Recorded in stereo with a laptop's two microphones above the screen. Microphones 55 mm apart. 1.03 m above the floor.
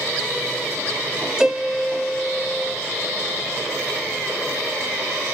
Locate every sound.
1.4 s a piano: 10° right (ahead or behind), 0.8 m